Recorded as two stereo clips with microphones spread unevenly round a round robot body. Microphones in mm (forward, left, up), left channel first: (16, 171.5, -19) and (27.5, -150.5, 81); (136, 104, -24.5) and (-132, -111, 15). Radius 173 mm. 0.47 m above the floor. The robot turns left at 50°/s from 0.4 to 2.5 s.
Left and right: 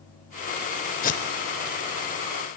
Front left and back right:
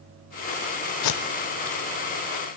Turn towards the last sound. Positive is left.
turn(degrees=-35)